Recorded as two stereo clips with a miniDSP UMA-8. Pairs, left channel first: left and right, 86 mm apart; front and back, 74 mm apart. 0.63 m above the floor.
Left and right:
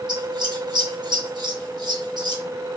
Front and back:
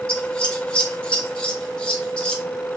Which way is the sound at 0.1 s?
75° right.